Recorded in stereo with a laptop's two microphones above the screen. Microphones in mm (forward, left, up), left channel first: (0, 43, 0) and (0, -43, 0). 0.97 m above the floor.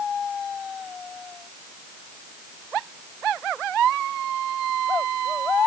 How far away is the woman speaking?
No woman speaking in this recording.